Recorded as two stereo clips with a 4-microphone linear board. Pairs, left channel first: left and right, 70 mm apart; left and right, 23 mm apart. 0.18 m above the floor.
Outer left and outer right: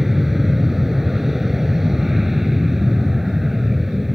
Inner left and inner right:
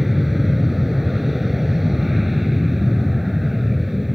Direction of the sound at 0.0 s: 5° right (ahead or behind).